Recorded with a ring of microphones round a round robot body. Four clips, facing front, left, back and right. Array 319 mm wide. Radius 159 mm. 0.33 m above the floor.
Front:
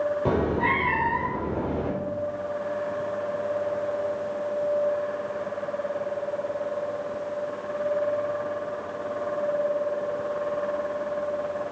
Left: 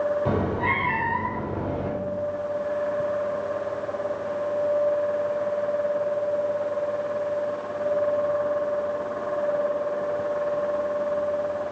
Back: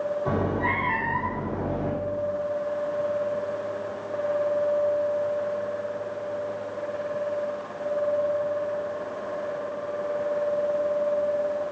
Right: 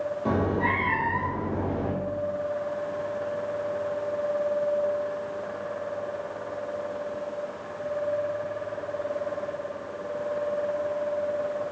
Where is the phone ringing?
No phone ringing in this recording.